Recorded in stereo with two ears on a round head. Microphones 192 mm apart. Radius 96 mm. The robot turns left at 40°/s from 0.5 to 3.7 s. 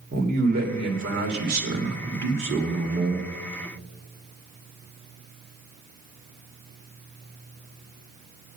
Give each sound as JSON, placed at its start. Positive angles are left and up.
{"t": 0.1, "sound": "a man speaking", "azimuth_deg": -40, "distance_m": 1.9}